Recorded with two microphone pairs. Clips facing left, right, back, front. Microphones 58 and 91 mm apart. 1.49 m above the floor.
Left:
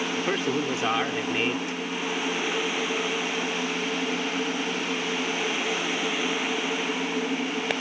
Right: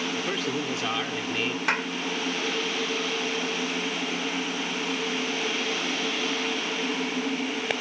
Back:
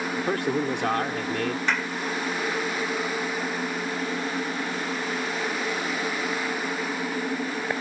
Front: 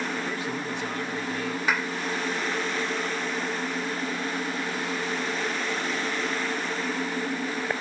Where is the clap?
80° right.